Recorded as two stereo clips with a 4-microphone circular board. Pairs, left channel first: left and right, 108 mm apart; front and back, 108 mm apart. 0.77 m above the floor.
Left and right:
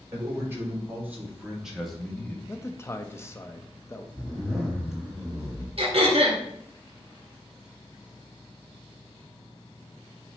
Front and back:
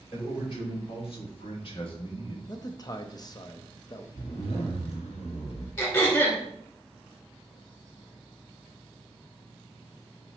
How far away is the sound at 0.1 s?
About 3 m.